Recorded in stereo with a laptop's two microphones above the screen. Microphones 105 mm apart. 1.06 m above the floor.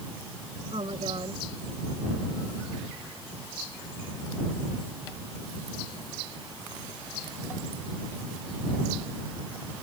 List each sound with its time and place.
0.7 s a woman speaking: 60° right (ahead or behind)